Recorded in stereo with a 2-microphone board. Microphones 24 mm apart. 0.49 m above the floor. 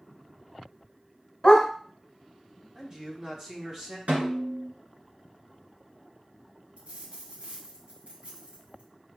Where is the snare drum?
75° right (ahead or behind), 1.7 m.